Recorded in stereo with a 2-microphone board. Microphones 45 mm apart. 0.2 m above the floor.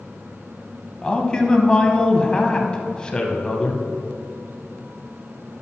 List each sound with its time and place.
1.0 s a man speaking: 20° left (ahead or behind), 1.0 m